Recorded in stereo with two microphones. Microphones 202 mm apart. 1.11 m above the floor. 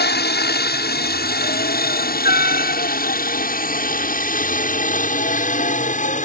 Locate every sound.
0.0 s a helicopter: 55° left (ahead or behind); by 6.2 s 40° left (ahead or behind)